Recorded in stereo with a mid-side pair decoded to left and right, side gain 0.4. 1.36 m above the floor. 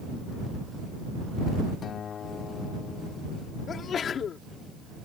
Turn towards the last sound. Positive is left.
turn(degrees=60)